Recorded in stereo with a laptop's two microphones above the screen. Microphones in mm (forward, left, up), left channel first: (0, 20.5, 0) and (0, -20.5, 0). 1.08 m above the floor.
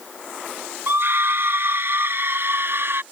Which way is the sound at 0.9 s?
60° right (ahead or behind).